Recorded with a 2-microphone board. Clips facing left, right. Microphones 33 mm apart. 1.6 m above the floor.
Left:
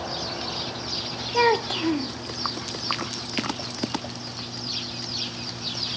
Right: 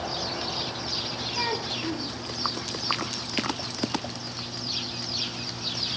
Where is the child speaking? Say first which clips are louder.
Left 11 dB; 60° left (ahead or behind), 0.7 m.